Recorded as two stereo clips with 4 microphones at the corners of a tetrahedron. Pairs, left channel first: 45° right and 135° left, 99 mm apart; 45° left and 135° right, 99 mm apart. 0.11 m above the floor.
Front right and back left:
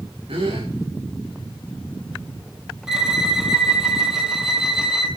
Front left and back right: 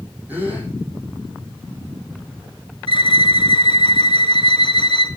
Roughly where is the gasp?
Behind left.